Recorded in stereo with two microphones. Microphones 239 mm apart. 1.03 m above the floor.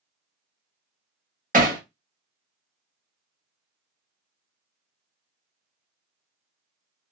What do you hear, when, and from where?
1.5 s hammering: 35° right (ahead or behind), 1.1 m